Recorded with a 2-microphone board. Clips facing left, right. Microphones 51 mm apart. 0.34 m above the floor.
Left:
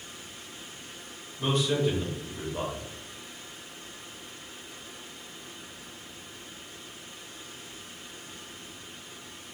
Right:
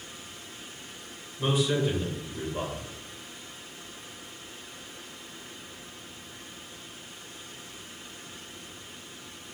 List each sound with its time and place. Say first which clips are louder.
1.4 s a man speaking: even; 5° right (ahead or behind), 0.9 m